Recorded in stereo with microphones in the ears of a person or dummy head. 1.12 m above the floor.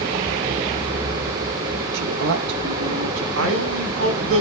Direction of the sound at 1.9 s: 65° right (ahead or behind).